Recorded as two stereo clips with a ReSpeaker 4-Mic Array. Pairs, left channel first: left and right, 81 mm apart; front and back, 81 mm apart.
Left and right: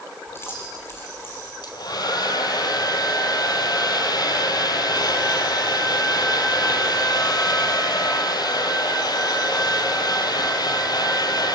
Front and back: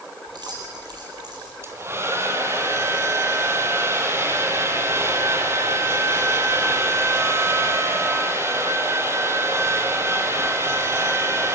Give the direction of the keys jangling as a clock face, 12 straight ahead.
7 o'clock.